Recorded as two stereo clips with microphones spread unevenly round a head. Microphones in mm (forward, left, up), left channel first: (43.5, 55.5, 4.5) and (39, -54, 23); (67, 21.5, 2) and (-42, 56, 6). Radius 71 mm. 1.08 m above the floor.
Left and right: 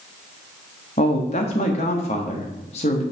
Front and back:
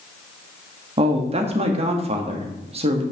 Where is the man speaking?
130° left, 1.5 m.